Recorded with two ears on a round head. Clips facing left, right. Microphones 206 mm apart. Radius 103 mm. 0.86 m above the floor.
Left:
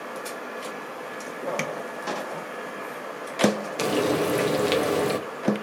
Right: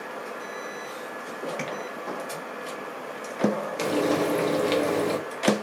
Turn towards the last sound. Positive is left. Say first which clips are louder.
# left 1 dB
turn(degrees=10)  # may be behind; listen again after turning